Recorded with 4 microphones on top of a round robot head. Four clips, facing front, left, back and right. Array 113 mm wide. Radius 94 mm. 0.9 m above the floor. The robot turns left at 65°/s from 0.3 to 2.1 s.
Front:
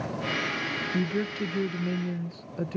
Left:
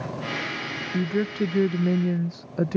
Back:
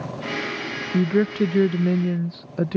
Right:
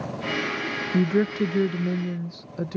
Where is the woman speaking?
140° right; by 2.8 s 145° left.